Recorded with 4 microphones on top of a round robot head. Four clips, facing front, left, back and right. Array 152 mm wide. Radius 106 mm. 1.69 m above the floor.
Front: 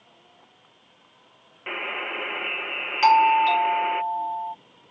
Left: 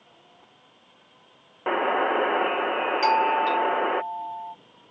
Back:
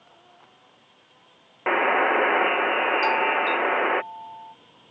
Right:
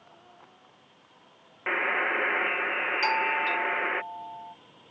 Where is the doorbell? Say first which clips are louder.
Left 7 dB, front 6 dB; 10° left.